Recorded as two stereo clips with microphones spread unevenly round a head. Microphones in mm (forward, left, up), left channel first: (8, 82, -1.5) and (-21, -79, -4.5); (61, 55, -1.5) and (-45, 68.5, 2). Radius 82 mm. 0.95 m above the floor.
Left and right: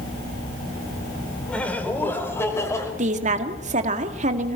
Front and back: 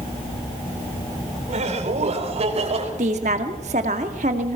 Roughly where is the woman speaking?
Behind right.